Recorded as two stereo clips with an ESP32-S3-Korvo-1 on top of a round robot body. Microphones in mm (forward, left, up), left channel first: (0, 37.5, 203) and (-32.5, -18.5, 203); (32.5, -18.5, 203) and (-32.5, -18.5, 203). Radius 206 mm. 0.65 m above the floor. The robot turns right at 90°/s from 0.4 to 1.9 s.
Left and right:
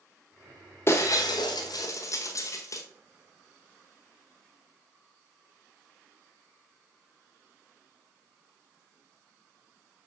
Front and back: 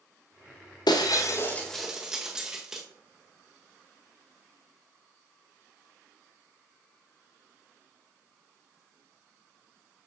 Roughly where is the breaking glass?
Ahead.